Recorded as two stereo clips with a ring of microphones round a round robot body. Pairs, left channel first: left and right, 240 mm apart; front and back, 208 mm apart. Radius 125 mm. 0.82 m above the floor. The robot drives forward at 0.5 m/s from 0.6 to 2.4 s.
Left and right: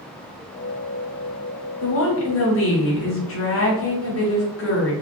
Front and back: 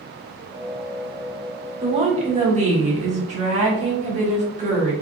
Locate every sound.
1.8 s a woman speaking: 115° left, 1.5 m; by 4.9 s 125° left, 1.7 m